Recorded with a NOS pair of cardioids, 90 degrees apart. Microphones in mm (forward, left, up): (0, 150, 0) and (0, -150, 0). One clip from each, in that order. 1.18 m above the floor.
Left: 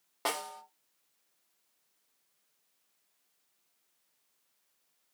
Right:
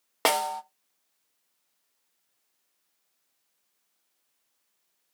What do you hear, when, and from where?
0.2 s a snare drum: 60° right, 0.6 m